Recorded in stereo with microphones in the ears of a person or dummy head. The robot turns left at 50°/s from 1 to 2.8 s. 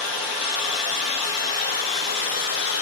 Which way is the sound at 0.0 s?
Straight behind.